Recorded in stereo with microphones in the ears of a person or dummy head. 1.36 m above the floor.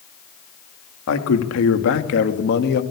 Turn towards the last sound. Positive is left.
turn(degrees=55)  # may be behind; listen again after turning